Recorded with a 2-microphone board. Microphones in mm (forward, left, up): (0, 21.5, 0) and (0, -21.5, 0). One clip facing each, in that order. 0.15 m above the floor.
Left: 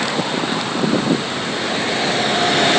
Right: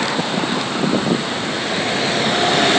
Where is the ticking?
I don't hear ticking.